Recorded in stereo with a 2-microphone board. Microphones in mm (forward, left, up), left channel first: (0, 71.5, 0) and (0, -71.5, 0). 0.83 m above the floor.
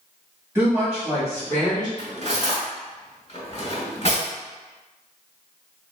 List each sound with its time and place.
0.6 s a woman speaking: 15° right (ahead or behind), 1.5 m; by 1.9 s 35° left (ahead or behind), 1.0 m
2.0 s cutlery clinking: 45° left (ahead or behind), 1.4 m